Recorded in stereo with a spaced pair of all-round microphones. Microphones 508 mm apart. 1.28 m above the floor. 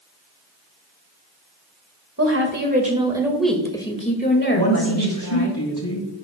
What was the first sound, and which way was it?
A woman speaking, 30° right (ahead or behind).